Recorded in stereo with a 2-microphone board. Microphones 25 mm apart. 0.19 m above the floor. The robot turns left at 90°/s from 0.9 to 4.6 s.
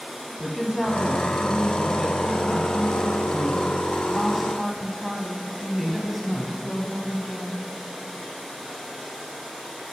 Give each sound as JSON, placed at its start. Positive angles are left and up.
{"t": 0.4, "sound": "a woman speaking", "side_deg": 5, "distance_m": 1.0}